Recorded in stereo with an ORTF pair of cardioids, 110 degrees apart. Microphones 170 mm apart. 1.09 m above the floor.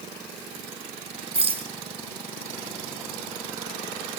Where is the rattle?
35° right, 3.5 m.